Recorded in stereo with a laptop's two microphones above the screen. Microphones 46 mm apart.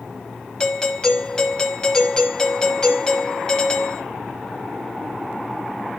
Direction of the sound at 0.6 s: 20° left (ahead or behind).